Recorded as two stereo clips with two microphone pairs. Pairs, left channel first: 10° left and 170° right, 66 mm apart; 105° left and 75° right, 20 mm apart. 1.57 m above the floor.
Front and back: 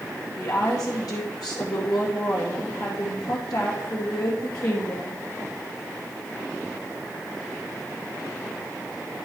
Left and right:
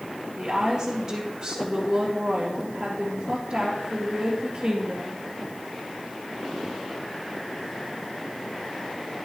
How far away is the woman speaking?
About 1.8 m.